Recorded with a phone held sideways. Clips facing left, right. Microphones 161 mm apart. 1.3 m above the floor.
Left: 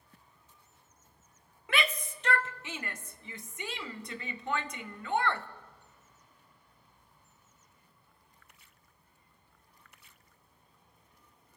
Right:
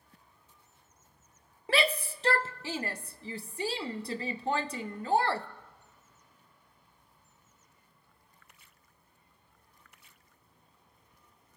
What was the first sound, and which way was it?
A shout, 30° right (ahead or behind).